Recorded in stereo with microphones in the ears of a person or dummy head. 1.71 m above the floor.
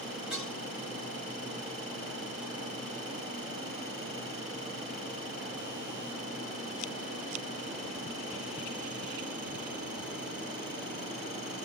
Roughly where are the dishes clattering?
Centre.